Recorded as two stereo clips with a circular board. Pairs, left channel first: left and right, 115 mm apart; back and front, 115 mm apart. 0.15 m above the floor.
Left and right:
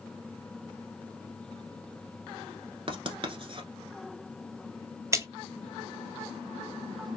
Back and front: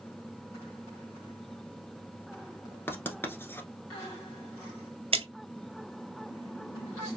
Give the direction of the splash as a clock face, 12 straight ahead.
1 o'clock.